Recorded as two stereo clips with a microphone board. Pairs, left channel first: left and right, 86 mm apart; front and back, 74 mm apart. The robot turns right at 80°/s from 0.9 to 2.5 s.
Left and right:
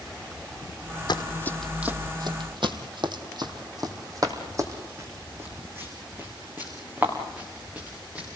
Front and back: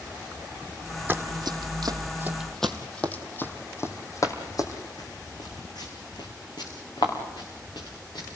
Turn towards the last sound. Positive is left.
turn(degrees=-15)